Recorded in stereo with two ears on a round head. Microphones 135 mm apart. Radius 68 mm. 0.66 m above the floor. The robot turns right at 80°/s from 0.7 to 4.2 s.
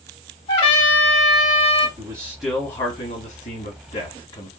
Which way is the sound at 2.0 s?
40° right.